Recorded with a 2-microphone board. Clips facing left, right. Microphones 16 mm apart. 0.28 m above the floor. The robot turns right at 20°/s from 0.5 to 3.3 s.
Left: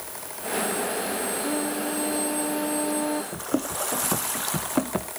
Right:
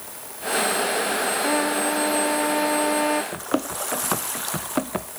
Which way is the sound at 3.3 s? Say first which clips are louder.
Right 2 dB; 50° right (ahead or behind).